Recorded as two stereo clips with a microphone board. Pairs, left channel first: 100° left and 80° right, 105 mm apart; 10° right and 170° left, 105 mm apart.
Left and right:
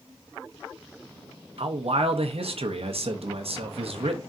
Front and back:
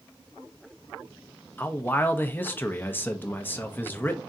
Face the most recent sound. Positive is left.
turn(degrees=-85)